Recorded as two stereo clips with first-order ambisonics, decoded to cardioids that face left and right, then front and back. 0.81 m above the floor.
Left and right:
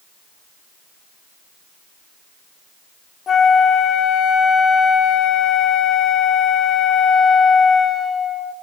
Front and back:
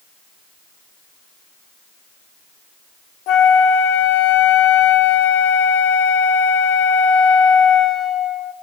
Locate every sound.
3.3 s a flute: 25° left, 0.7 m